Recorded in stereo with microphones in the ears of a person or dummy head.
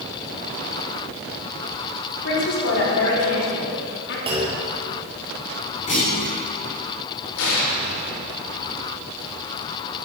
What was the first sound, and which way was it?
A man speaking, 70° left (ahead or behind).